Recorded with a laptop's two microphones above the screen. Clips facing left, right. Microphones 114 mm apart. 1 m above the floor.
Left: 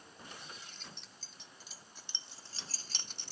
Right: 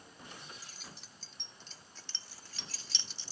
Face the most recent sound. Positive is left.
turn(degrees=60)  # may be behind; listen again after turning